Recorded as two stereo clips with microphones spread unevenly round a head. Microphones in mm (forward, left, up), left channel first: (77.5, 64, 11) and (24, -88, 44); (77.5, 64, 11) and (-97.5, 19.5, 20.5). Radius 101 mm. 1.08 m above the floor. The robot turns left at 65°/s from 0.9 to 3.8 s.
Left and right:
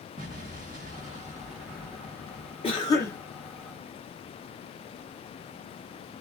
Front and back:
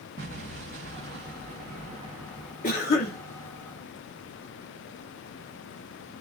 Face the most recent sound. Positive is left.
turn(degrees=-40)